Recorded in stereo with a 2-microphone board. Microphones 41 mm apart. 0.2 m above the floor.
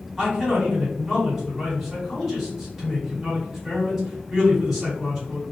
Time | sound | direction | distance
0.2 | a man speaking | 10° right (ahead or behind) | 1.9 m